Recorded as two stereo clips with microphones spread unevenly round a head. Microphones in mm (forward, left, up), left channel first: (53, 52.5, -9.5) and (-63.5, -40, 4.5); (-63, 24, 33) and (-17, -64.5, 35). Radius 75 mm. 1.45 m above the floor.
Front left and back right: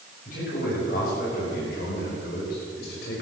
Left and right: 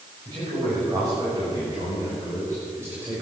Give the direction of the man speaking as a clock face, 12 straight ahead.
12 o'clock.